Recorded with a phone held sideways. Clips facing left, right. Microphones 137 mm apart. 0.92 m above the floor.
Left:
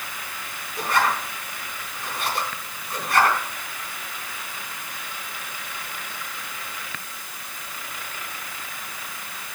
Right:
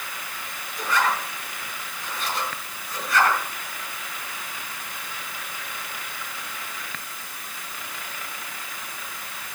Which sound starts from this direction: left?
A zipper, at 0.8 s.